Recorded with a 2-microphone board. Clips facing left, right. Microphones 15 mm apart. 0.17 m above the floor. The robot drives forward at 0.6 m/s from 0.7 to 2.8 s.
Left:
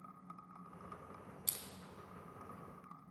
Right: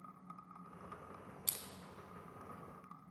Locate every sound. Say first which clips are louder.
1.5 s crushing: right 1 dB; 15° right (ahead or behind), 0.6 m